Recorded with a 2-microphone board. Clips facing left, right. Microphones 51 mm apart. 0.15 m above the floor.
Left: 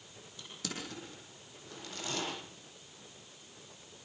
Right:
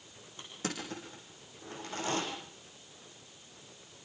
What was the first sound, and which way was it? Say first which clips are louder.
Crushing: right 4 dB; 35° right (ahead or behind).